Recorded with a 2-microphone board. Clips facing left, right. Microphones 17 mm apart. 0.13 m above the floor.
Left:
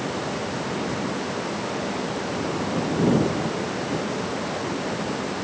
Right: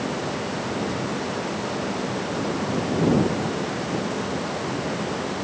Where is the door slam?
No door slam in this recording.